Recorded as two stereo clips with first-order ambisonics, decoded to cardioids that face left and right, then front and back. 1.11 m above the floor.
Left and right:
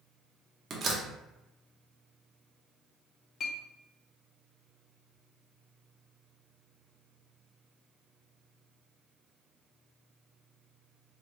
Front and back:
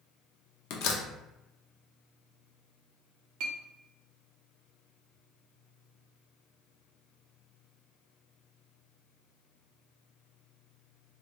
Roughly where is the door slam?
Ahead right.